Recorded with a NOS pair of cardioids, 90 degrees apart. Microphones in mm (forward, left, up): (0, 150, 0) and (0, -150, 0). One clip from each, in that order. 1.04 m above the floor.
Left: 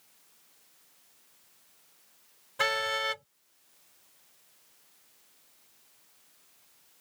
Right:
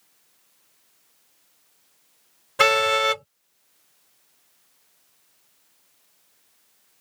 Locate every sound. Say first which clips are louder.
2.6 s a car horn: right 10 dB; 70° right